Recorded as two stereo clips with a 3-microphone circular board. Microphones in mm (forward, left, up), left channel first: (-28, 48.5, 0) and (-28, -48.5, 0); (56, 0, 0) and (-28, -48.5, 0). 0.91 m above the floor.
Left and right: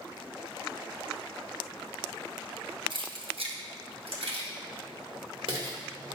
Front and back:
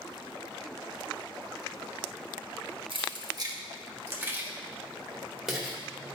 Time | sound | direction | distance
2.9 | keys jangling | 120° right | 0.9 m